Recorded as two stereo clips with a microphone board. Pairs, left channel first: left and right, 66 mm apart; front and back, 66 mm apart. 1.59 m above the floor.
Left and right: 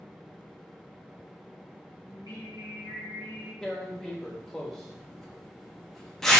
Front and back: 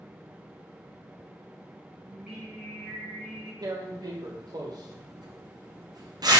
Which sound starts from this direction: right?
Singing, at 2.1 s.